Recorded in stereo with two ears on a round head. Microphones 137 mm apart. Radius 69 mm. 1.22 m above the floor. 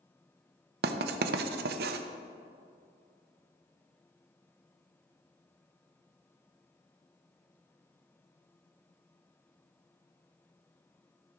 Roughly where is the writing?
Right.